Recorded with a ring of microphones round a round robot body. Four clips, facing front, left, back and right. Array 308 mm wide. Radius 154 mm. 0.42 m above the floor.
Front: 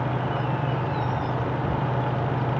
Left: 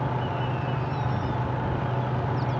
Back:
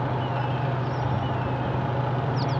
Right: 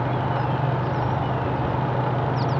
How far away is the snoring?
No snoring in this recording.